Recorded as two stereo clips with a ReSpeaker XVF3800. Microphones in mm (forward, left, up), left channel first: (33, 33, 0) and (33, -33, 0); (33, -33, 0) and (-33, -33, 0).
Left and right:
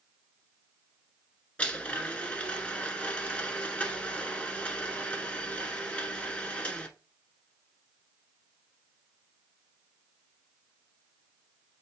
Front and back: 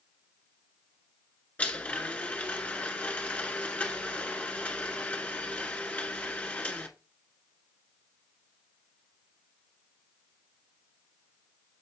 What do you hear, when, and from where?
1.6 s a blender: 40° left, 1.0 m